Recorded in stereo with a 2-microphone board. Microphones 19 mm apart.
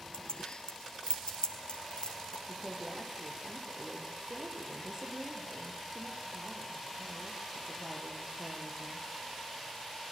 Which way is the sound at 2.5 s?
25° right (ahead or behind).